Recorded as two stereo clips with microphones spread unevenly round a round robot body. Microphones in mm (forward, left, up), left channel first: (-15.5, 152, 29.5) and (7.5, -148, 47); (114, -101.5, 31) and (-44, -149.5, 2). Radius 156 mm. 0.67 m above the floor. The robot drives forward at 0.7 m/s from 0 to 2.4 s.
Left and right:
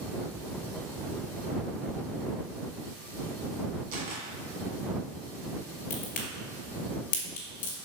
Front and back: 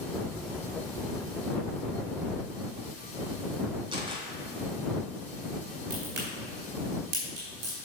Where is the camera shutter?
100° right, 2.5 m.